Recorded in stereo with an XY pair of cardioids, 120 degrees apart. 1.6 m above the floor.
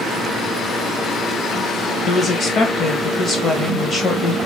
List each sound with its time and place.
2.1 s a woman speaking: 40° left, 1.4 m